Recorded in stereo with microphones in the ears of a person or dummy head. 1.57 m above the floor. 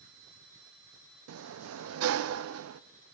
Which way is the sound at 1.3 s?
85° right.